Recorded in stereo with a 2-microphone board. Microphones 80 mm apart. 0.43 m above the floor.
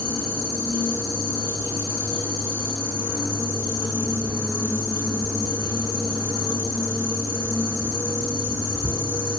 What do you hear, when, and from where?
0.0 s an insect: 35° right (ahead or behind), 6.5 m